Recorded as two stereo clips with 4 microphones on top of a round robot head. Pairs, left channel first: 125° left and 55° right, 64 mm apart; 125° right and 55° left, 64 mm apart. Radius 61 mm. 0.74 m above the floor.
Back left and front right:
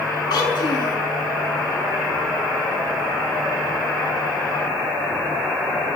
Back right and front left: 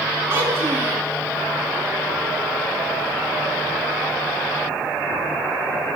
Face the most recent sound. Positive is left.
turn(degrees=115)